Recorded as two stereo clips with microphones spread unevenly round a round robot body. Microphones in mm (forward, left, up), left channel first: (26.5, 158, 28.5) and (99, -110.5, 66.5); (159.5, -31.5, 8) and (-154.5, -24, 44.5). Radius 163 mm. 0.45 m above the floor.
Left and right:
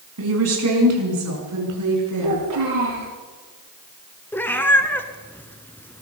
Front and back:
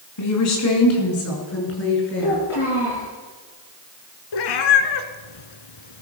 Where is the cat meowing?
20° left, 1.4 m.